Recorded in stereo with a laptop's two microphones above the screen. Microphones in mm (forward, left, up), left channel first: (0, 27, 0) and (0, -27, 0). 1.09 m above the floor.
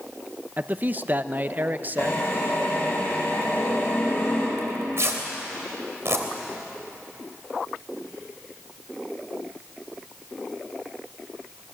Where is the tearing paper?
60° right (ahead or behind), 3 m.